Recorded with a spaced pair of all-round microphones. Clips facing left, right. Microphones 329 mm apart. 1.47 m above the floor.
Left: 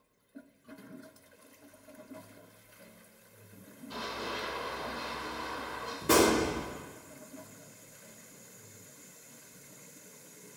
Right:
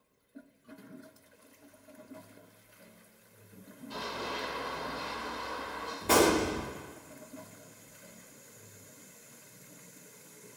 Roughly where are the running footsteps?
Centre.